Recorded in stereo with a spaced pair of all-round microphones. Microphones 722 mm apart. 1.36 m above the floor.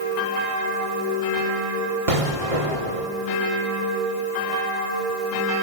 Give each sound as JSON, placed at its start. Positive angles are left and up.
{"t": 2.1, "sound": "an explosion", "side_deg": -45, "distance_m": 2.0}